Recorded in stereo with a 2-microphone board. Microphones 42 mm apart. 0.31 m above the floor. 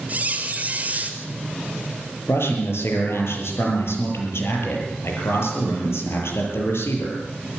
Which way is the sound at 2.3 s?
80° left.